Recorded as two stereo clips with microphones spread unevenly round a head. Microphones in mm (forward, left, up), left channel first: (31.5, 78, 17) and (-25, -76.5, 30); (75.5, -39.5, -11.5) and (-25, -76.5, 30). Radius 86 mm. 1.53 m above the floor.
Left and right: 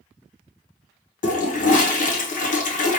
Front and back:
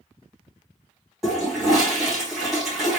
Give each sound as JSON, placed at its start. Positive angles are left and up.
{"t": 1.2, "sound": "a toilet flushing", "azimuth_deg": 115, "distance_m": 0.8}